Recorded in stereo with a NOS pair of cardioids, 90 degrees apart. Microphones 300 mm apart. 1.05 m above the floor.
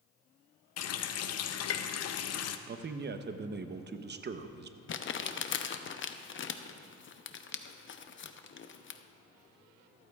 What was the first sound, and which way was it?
A running tap, 55° left.